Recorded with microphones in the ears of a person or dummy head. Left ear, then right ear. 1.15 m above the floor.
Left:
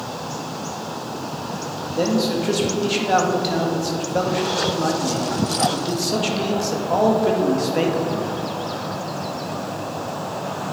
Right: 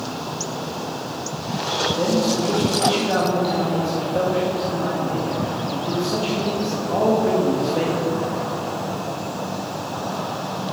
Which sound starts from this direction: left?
A man speaking, at 1.9 s.